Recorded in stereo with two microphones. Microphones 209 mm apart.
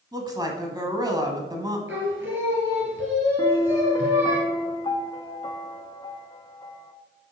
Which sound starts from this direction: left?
A piano, at 3.4 s.